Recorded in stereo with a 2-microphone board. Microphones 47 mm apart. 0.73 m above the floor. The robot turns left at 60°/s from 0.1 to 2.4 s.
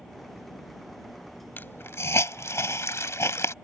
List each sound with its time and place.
1.6 s a hiss: 45° left (ahead or behind); by 3.5 s 80° left